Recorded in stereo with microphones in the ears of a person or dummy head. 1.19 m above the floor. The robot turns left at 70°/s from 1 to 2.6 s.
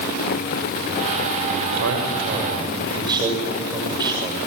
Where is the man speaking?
90° right, 6 m; by 4.4 s 160° right, 6 m.